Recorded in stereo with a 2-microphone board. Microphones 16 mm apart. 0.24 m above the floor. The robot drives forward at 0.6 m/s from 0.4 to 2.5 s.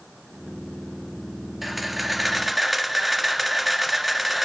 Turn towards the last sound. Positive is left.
turn(degrees=-5)  # may be behind; listen again after turning